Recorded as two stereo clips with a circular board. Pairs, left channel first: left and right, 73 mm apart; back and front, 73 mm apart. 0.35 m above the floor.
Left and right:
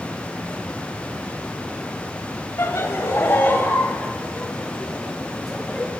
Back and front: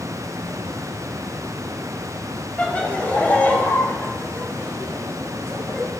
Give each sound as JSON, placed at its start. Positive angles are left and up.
{"t": 2.6, "sound": "laughter", "azimuth_deg": 120, "distance_m": 2.5}